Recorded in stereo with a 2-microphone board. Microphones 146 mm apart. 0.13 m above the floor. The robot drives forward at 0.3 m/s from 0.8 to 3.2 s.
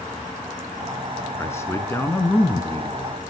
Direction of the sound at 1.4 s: 20° left (ahead or behind).